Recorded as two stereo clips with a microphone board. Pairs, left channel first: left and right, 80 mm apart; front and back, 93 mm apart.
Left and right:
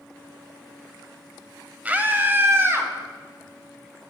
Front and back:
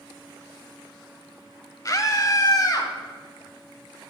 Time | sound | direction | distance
1.9 | a scream | 25° right | 1.2 m